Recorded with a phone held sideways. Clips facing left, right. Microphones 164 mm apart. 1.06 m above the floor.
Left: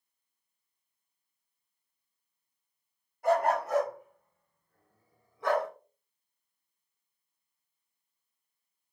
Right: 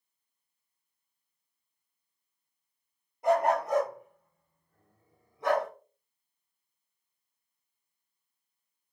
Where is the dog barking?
20° right (ahead or behind), 5 m.